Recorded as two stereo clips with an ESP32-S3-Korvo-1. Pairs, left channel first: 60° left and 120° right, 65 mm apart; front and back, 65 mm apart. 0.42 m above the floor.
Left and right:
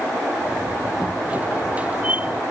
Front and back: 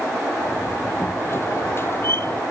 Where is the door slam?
50° right.